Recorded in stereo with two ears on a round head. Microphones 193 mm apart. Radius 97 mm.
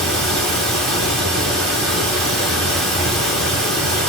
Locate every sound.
0.0 s running water: centre (ahead or behind), 1.2 m